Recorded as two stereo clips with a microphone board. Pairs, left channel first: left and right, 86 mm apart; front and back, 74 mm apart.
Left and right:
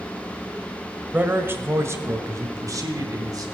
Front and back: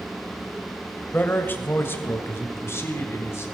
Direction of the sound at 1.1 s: 40° right.